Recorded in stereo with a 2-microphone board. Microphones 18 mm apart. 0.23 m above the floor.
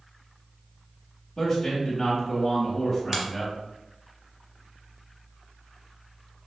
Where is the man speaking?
10° left (ahead or behind), 1.0 m.